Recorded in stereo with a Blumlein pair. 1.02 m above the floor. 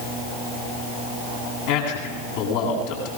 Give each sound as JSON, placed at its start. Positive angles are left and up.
{"t": 1.7, "sound": "a man speaking", "azimuth_deg": 50, "distance_m": 9.5}